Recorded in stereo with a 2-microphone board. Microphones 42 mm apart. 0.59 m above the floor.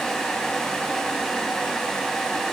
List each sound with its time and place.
Only background noise.